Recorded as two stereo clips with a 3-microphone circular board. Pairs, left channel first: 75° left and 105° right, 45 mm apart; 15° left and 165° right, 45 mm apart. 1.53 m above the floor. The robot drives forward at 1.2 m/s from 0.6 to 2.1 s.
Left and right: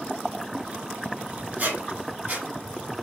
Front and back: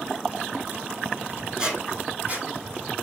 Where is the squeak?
105° right, 1.8 m; by 2.9 s 125° right, 2 m.